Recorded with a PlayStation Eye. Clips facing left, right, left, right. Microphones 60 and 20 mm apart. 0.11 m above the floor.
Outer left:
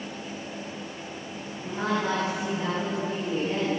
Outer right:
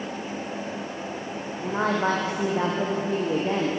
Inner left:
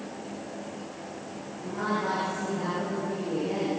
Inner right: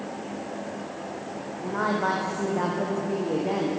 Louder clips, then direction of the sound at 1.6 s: Outer right 4 dB, inner right 4 dB; 45° right (ahead or behind).